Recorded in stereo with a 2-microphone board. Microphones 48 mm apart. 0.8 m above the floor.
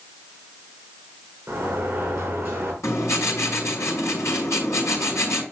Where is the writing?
75° left (ahead or behind), 4.5 m.